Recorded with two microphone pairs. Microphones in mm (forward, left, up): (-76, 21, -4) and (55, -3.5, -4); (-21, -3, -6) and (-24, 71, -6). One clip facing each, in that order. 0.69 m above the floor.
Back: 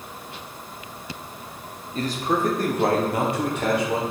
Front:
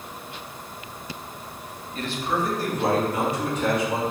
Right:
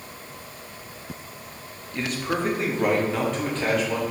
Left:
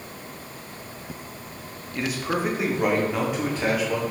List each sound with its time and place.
1.9 s a man speaking: 165° left, 0.6 m; by 4.0 s 170° left, 1.6 m